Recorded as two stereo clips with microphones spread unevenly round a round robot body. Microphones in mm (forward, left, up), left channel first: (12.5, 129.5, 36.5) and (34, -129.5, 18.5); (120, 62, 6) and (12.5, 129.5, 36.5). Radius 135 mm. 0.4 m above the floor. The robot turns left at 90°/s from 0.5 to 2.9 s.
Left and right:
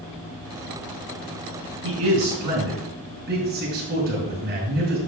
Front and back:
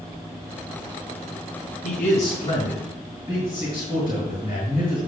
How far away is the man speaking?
About 5 m.